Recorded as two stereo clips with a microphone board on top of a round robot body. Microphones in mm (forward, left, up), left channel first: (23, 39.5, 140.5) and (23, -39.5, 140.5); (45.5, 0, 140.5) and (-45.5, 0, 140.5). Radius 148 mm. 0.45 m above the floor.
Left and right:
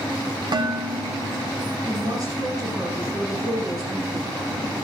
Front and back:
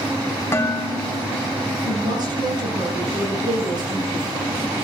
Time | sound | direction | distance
0.5 | dishes clattering | 65° right | 2.5 m
1.8 | a woman speaking | 135° right | 8.5 m